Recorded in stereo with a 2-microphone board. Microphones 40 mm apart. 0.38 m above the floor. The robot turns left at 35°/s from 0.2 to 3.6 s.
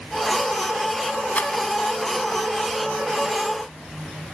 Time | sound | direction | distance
1.4 | a rattle | 40° left (ahead or behind) | 1.3 m